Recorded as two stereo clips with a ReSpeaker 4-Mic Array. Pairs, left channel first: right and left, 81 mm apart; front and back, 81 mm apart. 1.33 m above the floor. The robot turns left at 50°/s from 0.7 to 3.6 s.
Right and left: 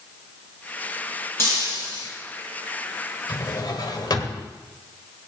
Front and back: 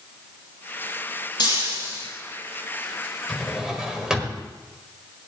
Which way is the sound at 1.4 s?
30° right.